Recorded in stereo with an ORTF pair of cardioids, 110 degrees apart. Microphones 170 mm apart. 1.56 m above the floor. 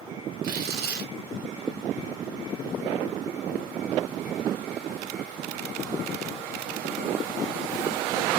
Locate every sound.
0.4 s tearing paper: 65° right, 1.0 m